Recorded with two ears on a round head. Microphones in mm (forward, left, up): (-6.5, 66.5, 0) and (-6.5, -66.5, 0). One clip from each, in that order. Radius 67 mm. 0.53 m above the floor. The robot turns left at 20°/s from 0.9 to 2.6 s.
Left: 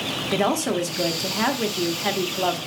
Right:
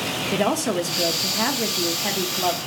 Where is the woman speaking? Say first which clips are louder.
Even; 5° left (ahead or behind), 0.9 m; by 2.6 s 15° left (ahead or behind), 0.9 m.